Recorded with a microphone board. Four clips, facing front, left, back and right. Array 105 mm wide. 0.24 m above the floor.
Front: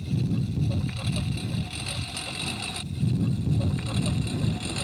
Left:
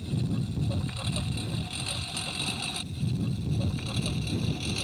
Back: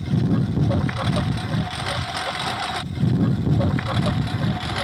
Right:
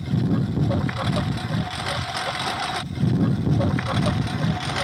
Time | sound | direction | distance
0.0 | a lawn mower | 140° right | ?